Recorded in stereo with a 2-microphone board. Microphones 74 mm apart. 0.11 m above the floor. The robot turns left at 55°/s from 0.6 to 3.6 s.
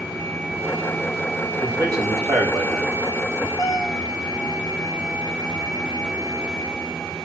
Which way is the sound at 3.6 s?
45° left (ahead or behind).